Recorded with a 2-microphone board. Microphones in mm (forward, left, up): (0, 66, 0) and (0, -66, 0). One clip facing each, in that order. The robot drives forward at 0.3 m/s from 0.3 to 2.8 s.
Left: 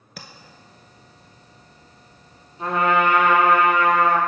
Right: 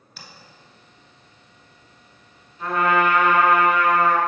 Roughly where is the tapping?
Left.